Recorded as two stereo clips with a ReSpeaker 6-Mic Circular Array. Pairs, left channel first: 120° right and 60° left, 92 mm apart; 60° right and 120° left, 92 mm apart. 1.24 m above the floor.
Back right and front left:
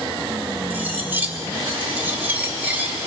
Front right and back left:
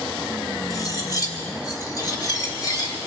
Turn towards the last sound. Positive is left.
turn(degrees=-10)